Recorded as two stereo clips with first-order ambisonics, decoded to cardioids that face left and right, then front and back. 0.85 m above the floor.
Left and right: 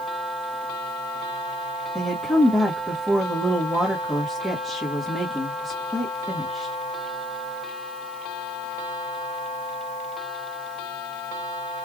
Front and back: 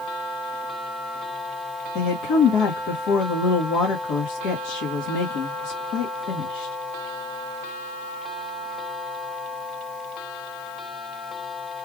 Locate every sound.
1.9 s a woman speaking: 5° left, 1.2 m